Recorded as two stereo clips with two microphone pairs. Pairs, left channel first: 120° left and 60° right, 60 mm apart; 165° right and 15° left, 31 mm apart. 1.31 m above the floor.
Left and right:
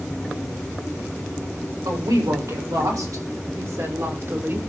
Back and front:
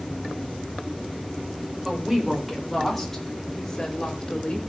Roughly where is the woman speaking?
Ahead right.